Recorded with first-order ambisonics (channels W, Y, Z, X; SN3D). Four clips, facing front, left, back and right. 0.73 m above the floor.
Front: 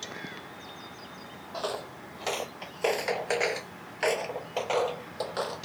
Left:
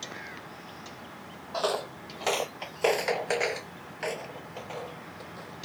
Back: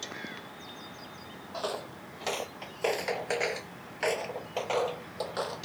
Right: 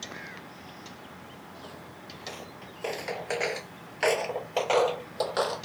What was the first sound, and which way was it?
Footsteps, 85° left.